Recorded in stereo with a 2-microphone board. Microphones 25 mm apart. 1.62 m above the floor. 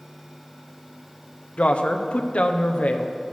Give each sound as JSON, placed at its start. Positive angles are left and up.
{"t": 1.6, "sound": "a woman speaking", "side_deg": 55, "distance_m": 0.9}